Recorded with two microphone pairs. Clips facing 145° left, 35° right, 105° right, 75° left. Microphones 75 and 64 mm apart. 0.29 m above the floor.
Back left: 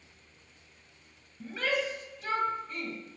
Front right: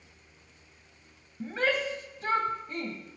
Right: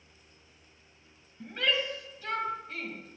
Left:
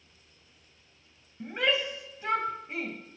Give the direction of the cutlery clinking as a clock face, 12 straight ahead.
No cutlery clinking in this recording.